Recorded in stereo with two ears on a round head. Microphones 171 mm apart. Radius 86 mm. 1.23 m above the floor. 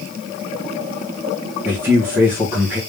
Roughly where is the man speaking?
Centre.